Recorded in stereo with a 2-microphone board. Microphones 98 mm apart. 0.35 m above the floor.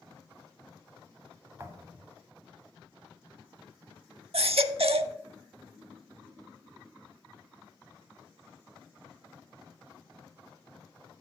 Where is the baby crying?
80° right, 0.6 m.